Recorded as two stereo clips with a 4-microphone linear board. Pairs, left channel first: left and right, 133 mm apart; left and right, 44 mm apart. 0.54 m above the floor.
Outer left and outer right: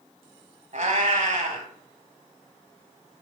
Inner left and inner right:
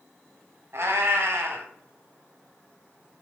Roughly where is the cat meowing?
Right.